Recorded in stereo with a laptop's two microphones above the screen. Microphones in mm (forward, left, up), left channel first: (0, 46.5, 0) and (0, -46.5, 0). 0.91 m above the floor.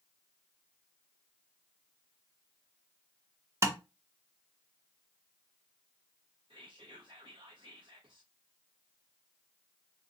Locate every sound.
3.6 s tapping: 30° right (ahead or behind), 0.7 m
6.5 s whispering: 65° right (ahead or behind), 0.7 m